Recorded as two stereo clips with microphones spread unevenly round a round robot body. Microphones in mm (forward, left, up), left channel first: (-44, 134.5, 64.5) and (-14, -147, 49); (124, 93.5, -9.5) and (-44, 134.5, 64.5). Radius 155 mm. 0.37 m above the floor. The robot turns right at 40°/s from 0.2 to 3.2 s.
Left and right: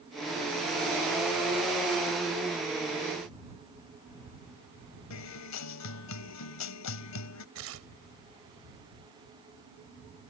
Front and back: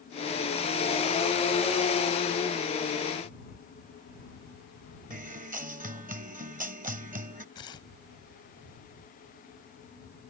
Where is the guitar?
120° left.